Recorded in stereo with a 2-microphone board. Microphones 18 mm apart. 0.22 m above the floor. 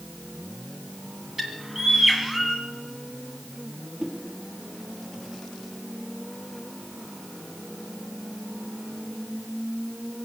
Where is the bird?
15° right (ahead or behind), 2.0 m.